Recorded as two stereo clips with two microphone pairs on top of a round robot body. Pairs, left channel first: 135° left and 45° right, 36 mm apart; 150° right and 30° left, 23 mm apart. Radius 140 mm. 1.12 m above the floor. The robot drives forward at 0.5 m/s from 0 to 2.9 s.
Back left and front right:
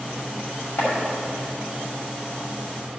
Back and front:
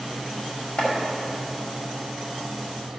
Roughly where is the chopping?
Behind.